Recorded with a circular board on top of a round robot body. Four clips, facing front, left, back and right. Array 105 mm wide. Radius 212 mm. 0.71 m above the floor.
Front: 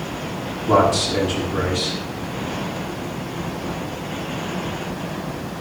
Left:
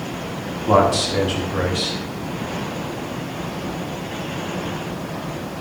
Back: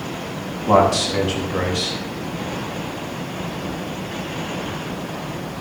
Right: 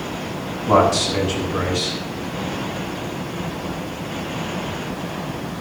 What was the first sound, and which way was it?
A man speaking, 160° left.